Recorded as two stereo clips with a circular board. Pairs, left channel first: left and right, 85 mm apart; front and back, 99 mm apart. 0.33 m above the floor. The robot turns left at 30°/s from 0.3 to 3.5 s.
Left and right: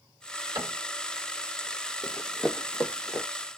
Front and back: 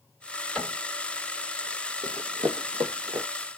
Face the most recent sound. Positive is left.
turn(degrees=140)